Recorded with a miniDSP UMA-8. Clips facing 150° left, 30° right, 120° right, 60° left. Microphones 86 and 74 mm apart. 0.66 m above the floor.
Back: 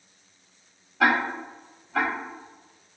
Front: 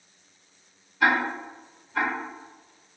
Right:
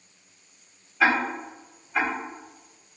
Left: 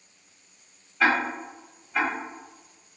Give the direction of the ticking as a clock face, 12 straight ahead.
7 o'clock.